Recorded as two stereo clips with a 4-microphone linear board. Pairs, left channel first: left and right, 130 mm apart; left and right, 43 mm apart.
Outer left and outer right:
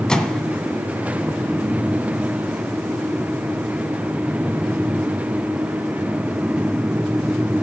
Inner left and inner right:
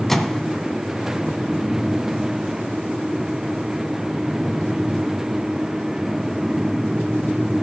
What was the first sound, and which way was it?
A microwave, 5° left (ahead or behind).